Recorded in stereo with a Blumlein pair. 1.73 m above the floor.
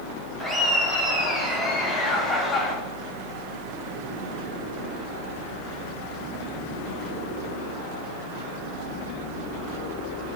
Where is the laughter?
5° left, 4.5 m; by 2.8 s 15° left, 3 m.